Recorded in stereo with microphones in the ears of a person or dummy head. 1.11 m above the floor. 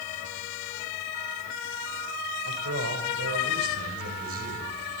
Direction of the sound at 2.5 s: 70° right (ahead or behind).